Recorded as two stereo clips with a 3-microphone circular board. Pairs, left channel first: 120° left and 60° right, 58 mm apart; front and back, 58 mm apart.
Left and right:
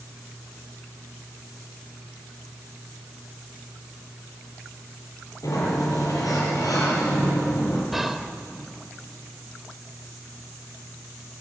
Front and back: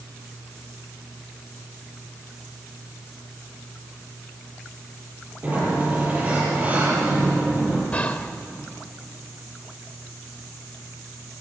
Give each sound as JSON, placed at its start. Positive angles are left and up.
{"t": 5.4, "sound": "a sliding door", "azimuth_deg": 120, "distance_m": 9.0}
{"t": 7.9, "sound": "whispering", "azimuth_deg": 25, "distance_m": 0.9}